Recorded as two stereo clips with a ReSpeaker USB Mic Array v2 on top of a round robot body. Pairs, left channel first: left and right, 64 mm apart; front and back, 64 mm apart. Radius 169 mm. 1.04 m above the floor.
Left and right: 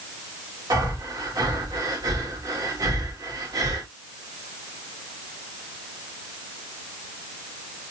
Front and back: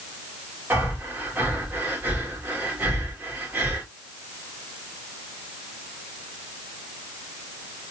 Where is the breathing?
115° right, 2 m.